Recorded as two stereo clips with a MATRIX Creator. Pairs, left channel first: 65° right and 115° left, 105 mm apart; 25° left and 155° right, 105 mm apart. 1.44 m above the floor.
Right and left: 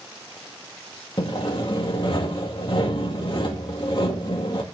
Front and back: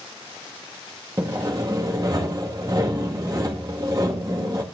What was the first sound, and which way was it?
Sawing, 105° right.